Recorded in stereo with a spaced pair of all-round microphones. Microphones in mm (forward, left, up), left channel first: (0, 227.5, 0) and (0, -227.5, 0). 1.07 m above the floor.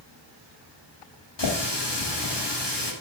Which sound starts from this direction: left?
A running tap, at 1.4 s.